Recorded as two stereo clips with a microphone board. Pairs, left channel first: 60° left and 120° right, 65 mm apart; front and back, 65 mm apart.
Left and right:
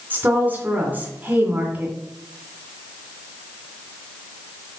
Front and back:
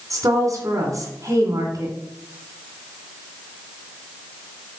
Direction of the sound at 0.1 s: 175° right.